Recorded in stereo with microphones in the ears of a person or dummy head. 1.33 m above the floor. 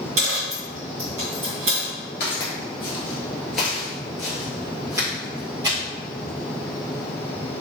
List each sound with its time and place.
0.2 s a dropped coin: 40° right (ahead or behind), 1.9 m
2.2 s footsteps: 30° left (ahead or behind), 1.5 m; by 5.8 s 20° right (ahead or behind), 2.5 m